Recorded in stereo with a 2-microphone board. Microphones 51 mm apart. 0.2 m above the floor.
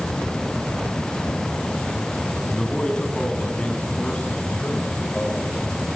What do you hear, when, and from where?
2.5 s a man speaking: 15° left (ahead or behind), 1.4 m; by 5.6 s 25° left (ahead or behind), 4 m